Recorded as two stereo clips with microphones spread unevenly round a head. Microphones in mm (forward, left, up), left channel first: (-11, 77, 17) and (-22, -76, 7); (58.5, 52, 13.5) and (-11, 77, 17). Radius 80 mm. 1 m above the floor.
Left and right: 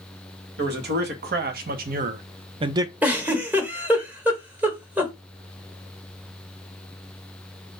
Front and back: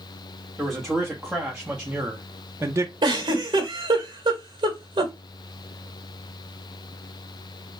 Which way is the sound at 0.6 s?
110° right.